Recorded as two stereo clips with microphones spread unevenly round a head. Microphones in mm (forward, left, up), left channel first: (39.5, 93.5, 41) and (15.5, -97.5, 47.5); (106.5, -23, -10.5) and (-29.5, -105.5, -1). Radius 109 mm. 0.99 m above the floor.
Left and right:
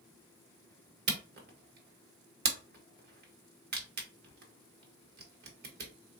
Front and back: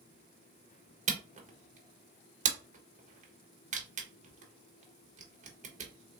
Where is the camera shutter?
115° right, 1.2 m.